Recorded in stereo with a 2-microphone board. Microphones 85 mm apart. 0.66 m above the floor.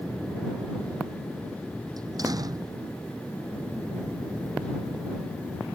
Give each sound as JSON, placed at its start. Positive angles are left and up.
{"t": 2.0, "sound": "a door slam", "side_deg": -50}